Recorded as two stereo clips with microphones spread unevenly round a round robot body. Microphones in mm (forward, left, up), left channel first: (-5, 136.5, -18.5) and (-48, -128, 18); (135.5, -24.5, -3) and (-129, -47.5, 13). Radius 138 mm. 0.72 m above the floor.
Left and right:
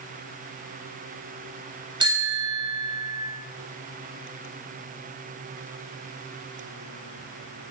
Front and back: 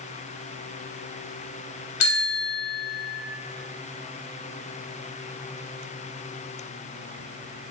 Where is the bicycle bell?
20° right, 3 m.